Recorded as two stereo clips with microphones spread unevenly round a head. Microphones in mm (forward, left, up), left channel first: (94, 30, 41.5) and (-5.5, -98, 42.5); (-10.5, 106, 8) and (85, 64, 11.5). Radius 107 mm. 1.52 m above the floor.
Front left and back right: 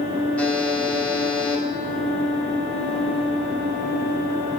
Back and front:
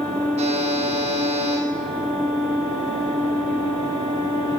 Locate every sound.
0.4 s a buzzer: 30° right, 3.5 m